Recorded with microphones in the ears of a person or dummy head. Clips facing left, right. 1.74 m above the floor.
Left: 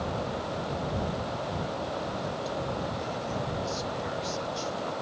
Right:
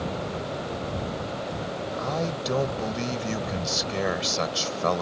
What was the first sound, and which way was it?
A man speaking, 80° right.